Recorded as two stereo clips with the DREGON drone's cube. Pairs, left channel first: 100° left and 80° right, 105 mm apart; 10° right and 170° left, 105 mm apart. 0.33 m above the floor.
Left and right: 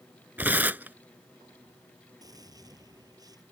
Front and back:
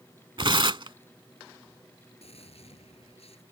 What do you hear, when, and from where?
0.4 s tearing paper: 150° right
2.2 s a gunshot: 25° right